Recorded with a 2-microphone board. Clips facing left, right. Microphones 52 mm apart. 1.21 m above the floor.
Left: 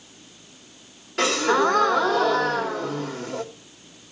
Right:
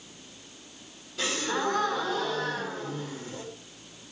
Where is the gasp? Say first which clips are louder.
Left 9 dB; 60° left (ahead or behind), 2 m.